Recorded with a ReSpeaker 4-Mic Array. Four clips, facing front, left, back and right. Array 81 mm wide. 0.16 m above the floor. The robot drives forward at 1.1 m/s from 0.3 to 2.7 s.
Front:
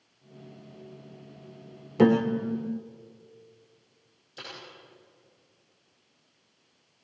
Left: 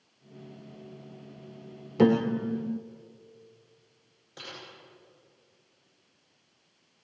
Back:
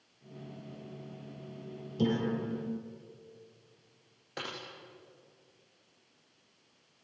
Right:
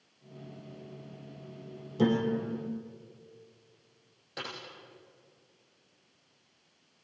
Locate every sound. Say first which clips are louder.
2.0 s a piano: left 5 dB, front 9 dB; 35° left, 1.9 m; by 2.8 s 55° left, 1.3 m
4.4 s typing on a keyboard: right 4 dB, back 3 dB; 160° right, 9.5 m